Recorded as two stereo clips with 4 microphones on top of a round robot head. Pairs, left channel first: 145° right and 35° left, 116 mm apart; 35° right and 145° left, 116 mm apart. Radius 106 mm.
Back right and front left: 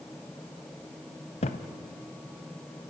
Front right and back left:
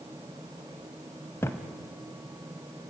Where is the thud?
110° right, 0.8 m.